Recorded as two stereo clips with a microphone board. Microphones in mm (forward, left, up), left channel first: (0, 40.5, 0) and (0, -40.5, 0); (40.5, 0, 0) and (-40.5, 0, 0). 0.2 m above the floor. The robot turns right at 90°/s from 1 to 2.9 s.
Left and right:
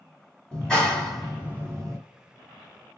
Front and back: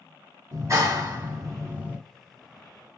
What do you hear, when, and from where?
0.5 s a clap: 160° left, 1.7 m; by 2.0 s 110° right, 1.7 m